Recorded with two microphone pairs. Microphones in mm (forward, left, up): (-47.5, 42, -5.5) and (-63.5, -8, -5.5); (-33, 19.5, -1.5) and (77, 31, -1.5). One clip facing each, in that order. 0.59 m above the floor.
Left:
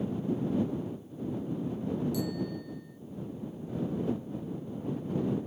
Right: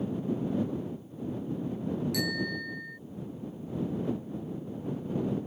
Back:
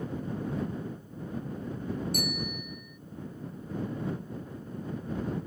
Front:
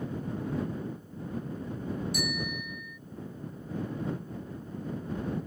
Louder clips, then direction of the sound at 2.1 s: Right 2 dB, even; 135° right.